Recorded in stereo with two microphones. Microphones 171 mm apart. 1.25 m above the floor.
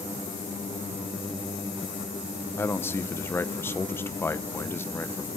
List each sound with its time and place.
2.6 s a man speaking: 15° left (ahead or behind), 0.6 m